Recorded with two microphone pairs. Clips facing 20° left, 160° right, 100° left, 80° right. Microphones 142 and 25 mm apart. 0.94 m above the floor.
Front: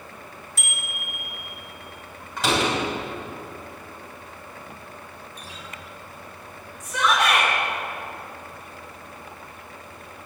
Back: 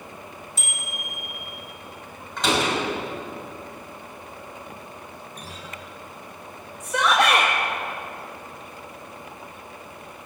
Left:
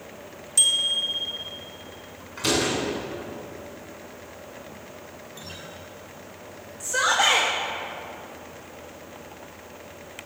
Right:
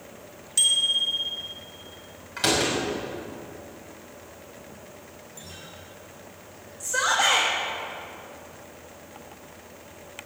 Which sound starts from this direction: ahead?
A bicycle bell, at 0.6 s.